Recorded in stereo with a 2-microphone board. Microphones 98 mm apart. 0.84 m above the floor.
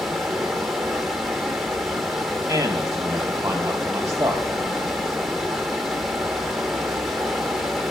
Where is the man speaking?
25° right (ahead or behind), 0.6 m.